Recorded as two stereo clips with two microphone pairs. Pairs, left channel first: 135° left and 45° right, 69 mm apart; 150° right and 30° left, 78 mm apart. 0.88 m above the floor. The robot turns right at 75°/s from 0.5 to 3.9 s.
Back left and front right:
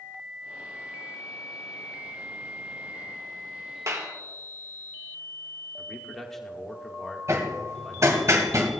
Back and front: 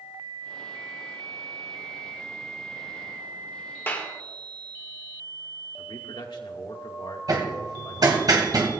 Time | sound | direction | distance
3.9 | a clap | 85° right | 2 m
5.8 | a man speaking | 140° right | 2 m
7.3 | hammering | straight ahead | 1.9 m